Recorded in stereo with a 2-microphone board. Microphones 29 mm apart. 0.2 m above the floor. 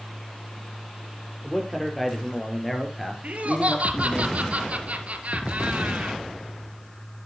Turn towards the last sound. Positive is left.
turn(degrees=-60)  # may be behind; listen again after turning